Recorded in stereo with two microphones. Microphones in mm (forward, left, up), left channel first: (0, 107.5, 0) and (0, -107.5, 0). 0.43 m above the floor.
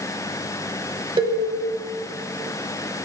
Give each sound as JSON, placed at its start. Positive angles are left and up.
{"t": 1.2, "sound": "a cowbell", "side_deg": -25, "distance_m": 1.1}